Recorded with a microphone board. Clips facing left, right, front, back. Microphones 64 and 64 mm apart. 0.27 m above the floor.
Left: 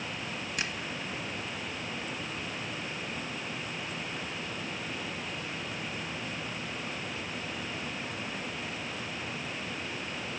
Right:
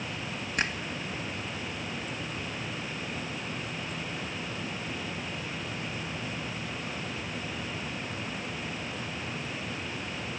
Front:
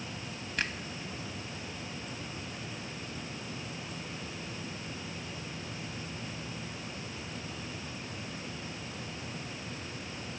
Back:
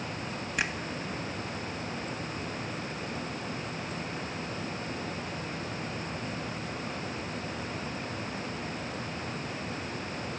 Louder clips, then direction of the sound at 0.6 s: Right 6 dB, back 3 dB; 105° right.